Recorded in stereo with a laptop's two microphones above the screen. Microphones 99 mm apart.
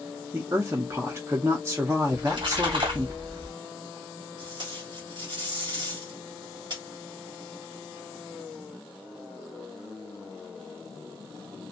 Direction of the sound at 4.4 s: 50° right (ahead or behind).